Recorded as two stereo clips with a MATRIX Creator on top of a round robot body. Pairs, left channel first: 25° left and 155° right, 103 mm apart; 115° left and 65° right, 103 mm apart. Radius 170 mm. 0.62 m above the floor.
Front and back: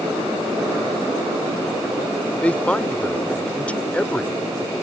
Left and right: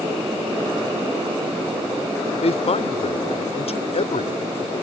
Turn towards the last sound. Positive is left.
turn(degrees=100)